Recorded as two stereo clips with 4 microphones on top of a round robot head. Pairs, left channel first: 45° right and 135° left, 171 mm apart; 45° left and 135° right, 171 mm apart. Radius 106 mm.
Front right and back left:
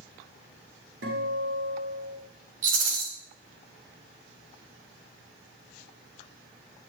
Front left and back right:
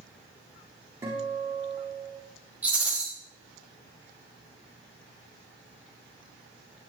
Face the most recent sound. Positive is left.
turn(degrees=140)